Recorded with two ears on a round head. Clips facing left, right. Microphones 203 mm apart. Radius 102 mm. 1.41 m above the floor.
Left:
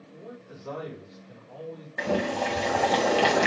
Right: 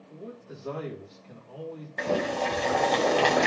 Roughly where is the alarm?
No alarm in this recording.